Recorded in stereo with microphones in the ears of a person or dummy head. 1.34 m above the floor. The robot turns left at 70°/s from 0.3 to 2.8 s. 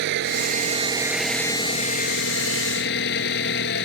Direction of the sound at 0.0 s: 115° right.